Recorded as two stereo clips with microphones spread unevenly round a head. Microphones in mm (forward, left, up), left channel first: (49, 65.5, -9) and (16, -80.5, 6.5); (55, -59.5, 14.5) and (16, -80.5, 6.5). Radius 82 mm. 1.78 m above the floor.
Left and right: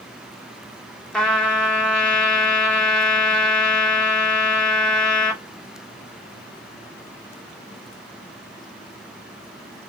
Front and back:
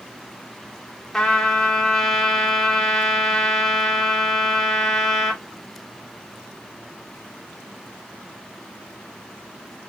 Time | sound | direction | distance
1.1 | a trumpet | 10° right | 1.1 m